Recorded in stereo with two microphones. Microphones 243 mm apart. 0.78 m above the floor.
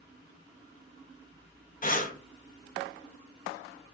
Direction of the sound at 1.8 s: 35° left (ahead or behind).